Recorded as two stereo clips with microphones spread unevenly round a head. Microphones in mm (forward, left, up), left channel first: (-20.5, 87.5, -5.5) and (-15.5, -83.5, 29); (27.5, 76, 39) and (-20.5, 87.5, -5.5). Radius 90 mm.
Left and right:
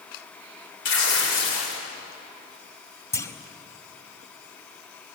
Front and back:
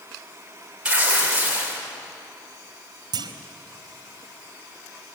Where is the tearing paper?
105° left, 5.5 m.